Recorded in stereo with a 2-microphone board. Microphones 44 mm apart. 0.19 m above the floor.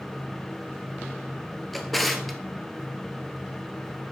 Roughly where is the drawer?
Centre.